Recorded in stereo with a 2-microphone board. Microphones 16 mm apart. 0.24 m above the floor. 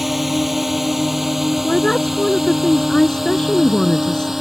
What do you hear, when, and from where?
0.0 s a drone: 5° right (ahead or behind); by 4.4 s 15° right (ahead or behind)
1.6 s a woman speaking: 50° left (ahead or behind)